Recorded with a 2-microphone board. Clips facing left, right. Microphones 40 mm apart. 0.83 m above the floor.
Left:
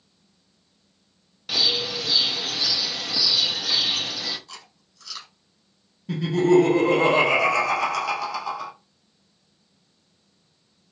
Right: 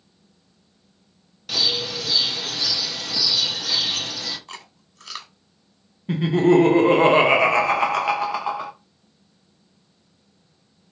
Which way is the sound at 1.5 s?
5° left (ahead or behind).